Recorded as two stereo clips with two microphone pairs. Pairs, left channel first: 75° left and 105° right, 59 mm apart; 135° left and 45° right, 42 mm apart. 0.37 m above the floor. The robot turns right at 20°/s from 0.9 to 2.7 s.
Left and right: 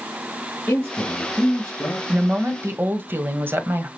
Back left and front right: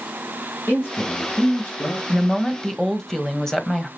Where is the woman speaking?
160° right, 1.6 m; by 3.9 s 145° right, 1.6 m.